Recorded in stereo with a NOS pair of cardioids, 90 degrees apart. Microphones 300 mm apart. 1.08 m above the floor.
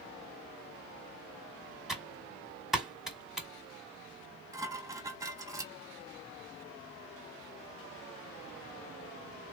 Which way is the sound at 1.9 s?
Straight ahead.